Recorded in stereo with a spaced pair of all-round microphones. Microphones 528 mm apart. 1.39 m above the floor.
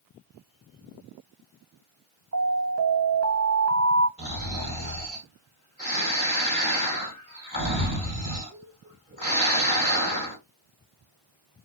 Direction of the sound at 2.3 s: 30° right (ahead or behind).